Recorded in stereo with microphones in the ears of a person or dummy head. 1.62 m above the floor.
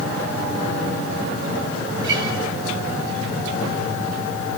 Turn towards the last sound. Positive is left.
turn(degrees=-70)  # may be behind; listen again after turning